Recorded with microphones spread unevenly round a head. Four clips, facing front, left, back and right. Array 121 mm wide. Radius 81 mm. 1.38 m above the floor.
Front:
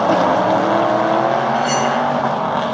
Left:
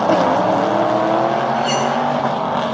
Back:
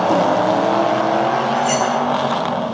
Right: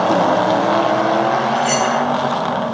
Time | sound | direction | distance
1.6 | cutlery clinking | 40° right | 9 m